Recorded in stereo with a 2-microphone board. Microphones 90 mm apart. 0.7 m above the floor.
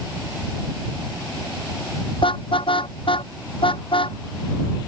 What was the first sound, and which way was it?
A car horn, 75° left (ahead or behind).